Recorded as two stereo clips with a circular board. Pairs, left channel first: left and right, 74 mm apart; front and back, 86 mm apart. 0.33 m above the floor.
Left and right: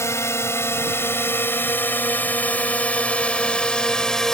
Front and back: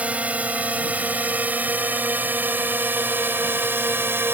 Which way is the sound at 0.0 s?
115° left.